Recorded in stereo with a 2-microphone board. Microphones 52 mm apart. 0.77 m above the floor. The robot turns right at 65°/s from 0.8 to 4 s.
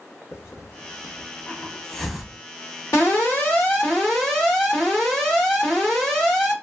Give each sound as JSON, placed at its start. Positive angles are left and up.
{"t": 0.3, "sound": "a hiss", "side_deg": 50, "distance_m": 0.7}
{"t": 2.9, "sound": "an alarm", "azimuth_deg": 95, "distance_m": 1.6}